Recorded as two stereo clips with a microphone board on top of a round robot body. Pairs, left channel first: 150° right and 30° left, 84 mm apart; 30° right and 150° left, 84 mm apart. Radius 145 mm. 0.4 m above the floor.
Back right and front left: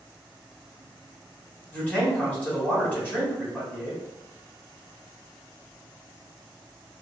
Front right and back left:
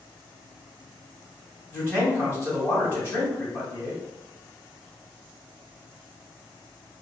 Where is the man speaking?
85° right, 1.9 m.